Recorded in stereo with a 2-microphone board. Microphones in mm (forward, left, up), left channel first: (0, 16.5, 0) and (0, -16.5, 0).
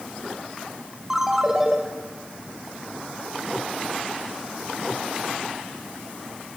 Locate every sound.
1.1 s a ringtone: 10° right (ahead or behind), 2.5 m